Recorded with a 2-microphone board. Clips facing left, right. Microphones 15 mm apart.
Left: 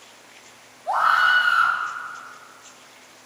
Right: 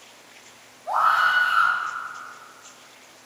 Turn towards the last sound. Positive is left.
turn(degrees=45)  # may be behind; listen again after turning